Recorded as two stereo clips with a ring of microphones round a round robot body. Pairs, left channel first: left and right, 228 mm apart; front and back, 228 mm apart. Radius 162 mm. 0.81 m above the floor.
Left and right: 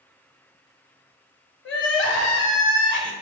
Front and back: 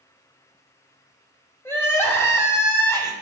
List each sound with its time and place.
1.6 s crying: 75° left, 0.9 m